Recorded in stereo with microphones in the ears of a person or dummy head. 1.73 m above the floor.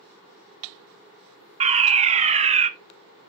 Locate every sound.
1.6 s a fire alarm: 35° right (ahead or behind), 0.6 m